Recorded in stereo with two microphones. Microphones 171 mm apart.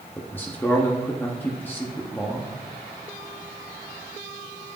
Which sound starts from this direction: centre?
A man speaking, at 0.2 s.